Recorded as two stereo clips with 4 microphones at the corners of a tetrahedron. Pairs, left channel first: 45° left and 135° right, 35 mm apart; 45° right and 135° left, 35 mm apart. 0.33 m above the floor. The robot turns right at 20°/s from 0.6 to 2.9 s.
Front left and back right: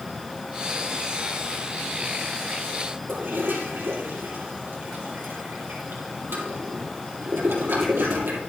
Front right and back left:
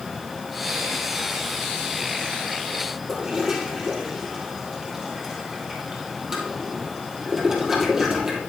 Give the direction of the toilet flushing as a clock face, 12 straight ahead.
5 o'clock.